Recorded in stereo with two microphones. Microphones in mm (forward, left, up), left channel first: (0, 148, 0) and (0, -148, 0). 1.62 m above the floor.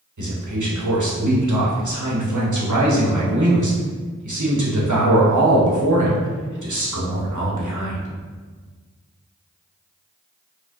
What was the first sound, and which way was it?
A man speaking, 80° right.